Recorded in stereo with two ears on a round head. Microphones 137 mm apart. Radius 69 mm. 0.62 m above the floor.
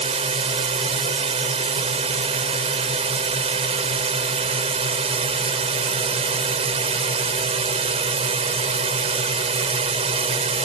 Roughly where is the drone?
Right.